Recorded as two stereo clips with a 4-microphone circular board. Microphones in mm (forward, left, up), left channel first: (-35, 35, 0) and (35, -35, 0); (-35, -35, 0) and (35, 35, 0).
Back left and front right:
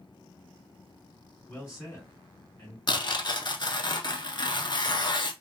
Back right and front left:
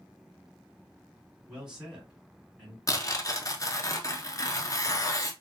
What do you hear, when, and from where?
1.5 s a man speaking: 125° left, 1.5 m
2.9 s tearing paper: 175° left, 0.6 m